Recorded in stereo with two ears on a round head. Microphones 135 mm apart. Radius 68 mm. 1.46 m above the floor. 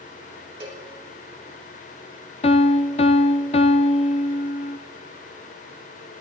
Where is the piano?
45° left (ahead or behind), 0.7 m.